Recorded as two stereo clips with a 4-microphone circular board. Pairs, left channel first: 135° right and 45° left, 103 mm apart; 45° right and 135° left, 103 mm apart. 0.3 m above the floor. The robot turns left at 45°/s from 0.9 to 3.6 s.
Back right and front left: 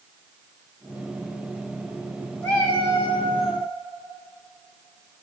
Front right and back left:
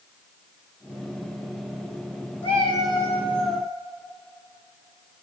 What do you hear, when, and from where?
2.4 s a cat meowing: 55° right, 2.5 m; by 3.7 s 110° right, 2.5 m